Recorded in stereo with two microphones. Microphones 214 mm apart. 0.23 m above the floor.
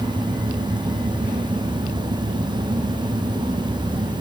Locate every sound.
Only background noise.